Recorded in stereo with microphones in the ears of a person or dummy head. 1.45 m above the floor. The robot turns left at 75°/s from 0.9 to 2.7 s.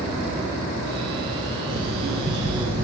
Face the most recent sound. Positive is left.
turn(degrees=-155)